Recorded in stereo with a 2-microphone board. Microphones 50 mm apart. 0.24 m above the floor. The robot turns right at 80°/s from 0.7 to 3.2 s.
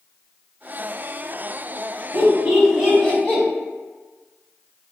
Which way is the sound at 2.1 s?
40° right (ahead or behind).